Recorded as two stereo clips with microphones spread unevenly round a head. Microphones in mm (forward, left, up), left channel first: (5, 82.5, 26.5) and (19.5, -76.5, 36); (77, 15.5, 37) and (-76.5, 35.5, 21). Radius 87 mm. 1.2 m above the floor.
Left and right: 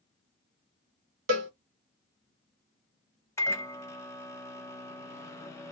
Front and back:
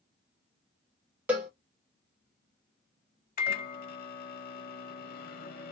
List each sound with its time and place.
1.3 s a cowbell: 105° right, 1.0 m
3.4 s a microwave: 20° left, 0.8 m